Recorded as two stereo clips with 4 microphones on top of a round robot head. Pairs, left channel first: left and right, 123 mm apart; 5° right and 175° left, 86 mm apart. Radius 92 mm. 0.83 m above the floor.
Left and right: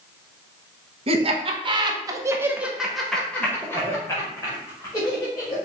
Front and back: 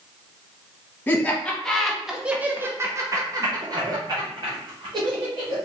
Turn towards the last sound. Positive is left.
turn(degrees=145)